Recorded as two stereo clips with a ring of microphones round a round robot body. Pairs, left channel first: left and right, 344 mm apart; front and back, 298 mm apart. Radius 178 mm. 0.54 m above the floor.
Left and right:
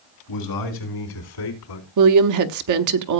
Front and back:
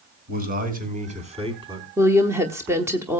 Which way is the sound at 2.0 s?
100° right.